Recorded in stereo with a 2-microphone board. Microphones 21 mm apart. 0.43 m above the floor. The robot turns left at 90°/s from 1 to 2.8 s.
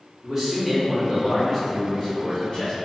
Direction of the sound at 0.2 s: 20° right (ahead or behind).